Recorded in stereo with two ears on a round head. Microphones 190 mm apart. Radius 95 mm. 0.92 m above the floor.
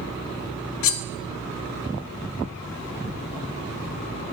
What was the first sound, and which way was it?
Cutlery clinking, 70° left (ahead or behind).